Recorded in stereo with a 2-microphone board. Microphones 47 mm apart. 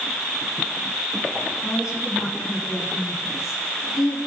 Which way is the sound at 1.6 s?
90° left.